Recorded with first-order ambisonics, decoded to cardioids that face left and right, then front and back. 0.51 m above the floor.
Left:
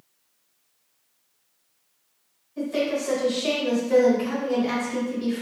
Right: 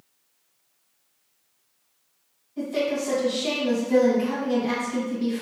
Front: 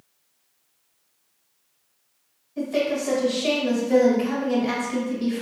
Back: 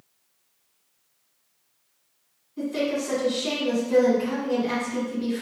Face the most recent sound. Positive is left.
turn(degrees=15)